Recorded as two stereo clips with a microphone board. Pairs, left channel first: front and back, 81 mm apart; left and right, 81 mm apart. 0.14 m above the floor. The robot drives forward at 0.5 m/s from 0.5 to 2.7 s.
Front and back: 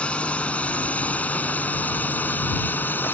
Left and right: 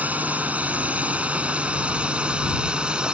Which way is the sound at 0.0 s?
50° right.